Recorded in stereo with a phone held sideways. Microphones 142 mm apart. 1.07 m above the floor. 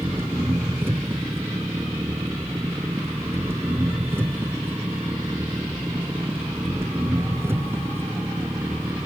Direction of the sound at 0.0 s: 15° right (ahead or behind).